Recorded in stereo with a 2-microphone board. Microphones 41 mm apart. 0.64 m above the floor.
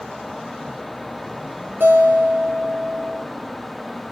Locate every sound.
1.8 s a guitar: 65° right (ahead or behind), 8.5 m